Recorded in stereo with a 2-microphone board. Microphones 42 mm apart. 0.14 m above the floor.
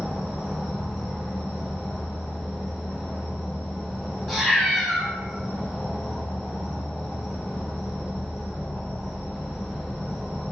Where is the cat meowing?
Centre (ahead or behind), 0.7 m.